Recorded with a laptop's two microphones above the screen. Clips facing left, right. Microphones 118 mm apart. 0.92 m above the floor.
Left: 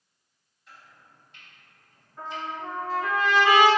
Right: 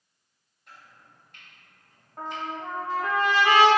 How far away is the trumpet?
About 1.2 m.